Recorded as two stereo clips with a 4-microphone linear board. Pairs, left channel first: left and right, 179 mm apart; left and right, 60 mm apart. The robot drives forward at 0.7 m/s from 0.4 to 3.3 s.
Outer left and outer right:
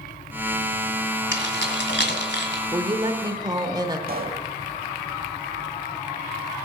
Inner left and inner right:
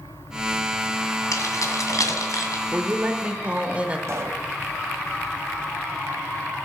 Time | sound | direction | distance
1.3 | keys jangling | 70° left (ahead or behind) | 1.8 m
2.7 | a woman speaking | 25° right (ahead or behind) | 0.8 m
4.1 | a pop | 55° right (ahead or behind) | 0.9 m